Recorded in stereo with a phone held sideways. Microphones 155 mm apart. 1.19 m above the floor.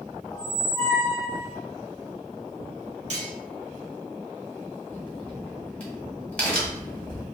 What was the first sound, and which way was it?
A squeak, 30° left (ahead or behind).